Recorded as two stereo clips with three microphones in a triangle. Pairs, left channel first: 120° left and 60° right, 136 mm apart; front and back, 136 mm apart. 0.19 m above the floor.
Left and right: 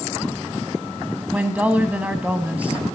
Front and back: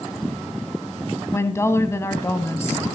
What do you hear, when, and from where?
1.3 s a woman speaking: straight ahead, 1.0 m